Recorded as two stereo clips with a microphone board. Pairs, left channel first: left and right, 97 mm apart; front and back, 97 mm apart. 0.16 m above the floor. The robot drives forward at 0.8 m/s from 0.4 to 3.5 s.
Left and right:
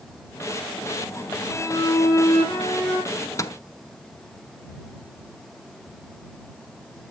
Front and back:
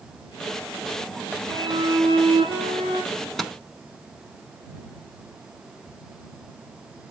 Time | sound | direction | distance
1.5 | a violin | 145° left | 4.5 m
3.1 | a microwave | 65° left | 1.0 m